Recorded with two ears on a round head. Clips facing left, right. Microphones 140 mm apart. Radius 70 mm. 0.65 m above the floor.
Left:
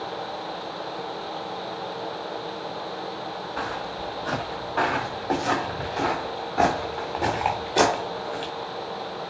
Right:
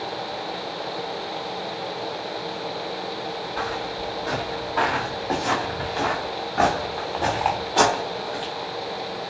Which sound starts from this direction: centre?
Footsteps, at 3.6 s.